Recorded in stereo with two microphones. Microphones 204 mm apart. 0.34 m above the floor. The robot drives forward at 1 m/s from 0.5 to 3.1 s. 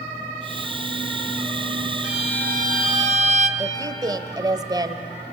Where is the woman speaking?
20° right (ahead or behind), 1.5 m.